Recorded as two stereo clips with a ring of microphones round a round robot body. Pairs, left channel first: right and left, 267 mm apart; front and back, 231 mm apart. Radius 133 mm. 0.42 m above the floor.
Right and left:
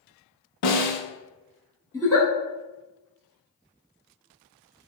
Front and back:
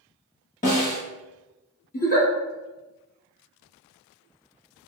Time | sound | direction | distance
0.6 | a snare drum | 65° right | 0.7 m
1.9 | a giggle | 20° right | 1.1 m